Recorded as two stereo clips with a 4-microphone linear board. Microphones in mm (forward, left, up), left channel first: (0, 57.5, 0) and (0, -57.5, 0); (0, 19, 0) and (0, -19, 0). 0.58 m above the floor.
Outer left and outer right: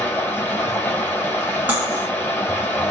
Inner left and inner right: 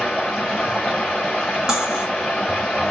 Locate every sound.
0.0 s running water: 15° left (ahead or behind), 2.5 m
1.7 s cutlery clinking: 15° right (ahead or behind), 1.6 m